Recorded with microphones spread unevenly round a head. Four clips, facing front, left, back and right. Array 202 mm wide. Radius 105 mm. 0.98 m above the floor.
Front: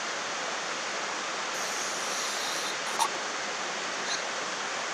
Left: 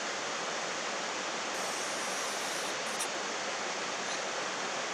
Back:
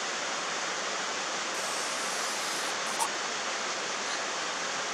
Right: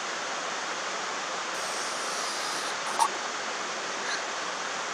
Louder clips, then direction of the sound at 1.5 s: Right 3 dB, even; 70° right.